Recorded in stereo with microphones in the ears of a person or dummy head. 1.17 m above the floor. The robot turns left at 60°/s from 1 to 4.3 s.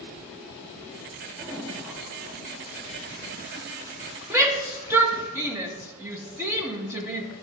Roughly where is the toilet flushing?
Ahead.